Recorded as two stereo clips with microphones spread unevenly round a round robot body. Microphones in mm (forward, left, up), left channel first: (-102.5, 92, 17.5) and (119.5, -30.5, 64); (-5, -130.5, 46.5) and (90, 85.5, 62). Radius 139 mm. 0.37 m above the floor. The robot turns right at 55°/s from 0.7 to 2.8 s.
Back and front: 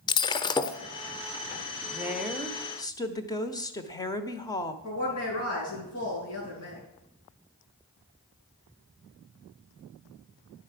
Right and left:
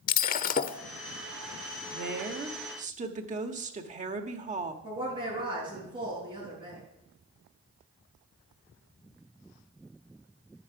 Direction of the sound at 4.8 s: 140° left.